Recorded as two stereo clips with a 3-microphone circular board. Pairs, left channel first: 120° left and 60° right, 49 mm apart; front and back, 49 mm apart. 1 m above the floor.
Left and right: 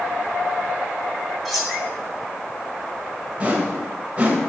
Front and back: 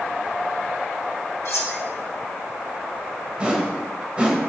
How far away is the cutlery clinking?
About 1.1 m.